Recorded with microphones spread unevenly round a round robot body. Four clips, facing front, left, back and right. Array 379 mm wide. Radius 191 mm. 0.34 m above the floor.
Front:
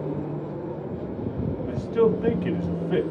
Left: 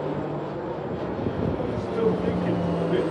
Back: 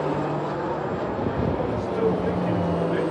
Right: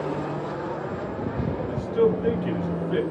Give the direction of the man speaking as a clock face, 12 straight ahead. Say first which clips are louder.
Right 5 dB, front 1 dB; 12 o'clock.